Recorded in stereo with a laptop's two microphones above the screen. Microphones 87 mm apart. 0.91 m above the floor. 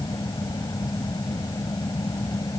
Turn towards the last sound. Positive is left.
turn(degrees=45)  # may be behind; listen again after turning